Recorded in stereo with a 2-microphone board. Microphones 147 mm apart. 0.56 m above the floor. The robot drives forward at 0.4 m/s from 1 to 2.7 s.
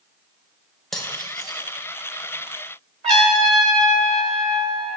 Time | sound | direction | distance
0.9 | cutlery clinking | 5° left (ahead or behind) | 1.3 m
3.0 | a trumpet | 50° right (ahead or behind) | 1.6 m